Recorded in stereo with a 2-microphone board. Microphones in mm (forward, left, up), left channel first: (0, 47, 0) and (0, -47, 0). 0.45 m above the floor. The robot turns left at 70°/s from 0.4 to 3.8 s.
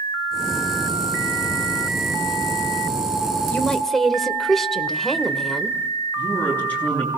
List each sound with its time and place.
3.5 s a woman speaking: 20° left (ahead or behind), 1.4 m; by 5.8 s 5° left (ahead or behind), 1.4 m
6.2 s a man speaking: 20° left (ahead or behind), 7.5 m